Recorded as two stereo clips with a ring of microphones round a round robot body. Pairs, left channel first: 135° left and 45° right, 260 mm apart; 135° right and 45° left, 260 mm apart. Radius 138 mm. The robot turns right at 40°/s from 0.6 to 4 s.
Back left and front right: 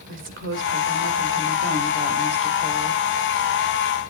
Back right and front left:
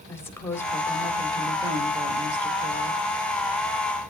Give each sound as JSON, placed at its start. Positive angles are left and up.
{"t": 0.1, "sound": "a woman speaking", "azimuth_deg": -60, "distance_m": 1.5}